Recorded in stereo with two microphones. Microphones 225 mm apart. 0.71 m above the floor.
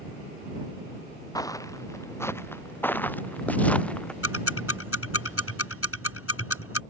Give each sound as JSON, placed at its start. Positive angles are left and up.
{"t": 1.4, "sound": "footsteps", "side_deg": 15}
{"t": 4.2, "sound": "ticking", "side_deg": 85}